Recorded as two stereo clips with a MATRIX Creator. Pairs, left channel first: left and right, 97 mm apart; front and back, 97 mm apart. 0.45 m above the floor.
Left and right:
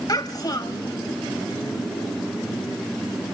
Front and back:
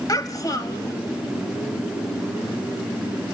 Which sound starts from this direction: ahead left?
A child speaking, at 0.1 s.